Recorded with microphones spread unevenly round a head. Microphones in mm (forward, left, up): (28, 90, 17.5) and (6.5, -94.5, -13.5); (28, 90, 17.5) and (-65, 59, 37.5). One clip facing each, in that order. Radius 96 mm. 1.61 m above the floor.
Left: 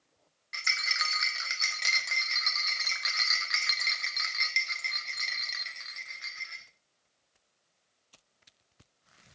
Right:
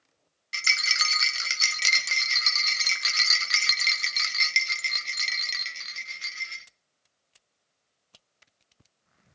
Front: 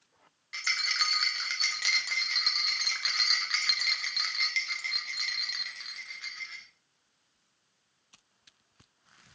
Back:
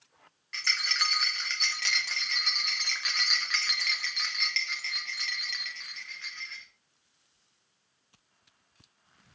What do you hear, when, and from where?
0.5 s a rattle: 80° right, 0.7 m